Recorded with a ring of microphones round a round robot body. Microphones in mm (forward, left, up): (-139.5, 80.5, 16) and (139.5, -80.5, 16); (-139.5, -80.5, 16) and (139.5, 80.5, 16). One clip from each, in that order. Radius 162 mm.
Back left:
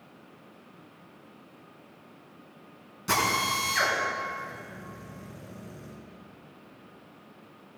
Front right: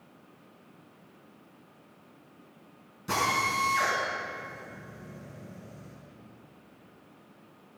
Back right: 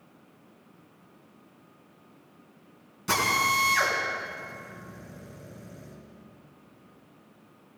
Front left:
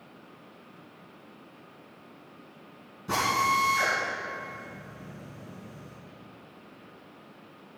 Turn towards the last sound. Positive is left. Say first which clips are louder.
# back left 1 dB, back right 1 dB
turn(degrees=-145)